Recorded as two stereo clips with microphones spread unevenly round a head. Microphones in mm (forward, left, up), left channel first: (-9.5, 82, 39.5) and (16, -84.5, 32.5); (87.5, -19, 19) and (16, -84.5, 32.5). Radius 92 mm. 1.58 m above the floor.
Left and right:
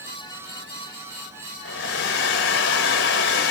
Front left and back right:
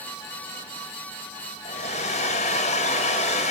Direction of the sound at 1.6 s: 80° left.